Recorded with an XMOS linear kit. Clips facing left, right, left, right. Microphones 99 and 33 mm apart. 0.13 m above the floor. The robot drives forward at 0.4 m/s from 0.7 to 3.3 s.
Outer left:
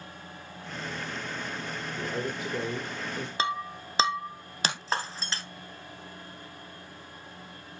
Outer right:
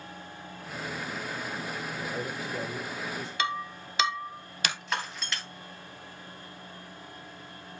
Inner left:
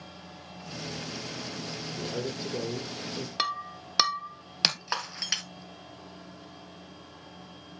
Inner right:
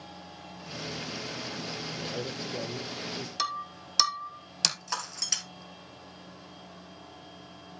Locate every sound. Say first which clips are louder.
2.0 s a man speaking: outer left 5 dB, inner left 4 dB; 30° left (ahead or behind), 4 m; by 3.3 s 25° left (ahead or behind), 4.5 m
3.4 s breaking glass: outer left 1 dB, inner left 2 dB; 30° left (ahead or behind), 1.1 m